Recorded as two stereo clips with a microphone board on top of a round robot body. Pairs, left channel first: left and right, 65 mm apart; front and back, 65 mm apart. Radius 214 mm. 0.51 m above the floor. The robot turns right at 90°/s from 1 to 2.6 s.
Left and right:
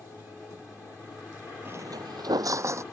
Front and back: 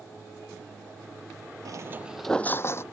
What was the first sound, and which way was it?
Footsteps, 155° right.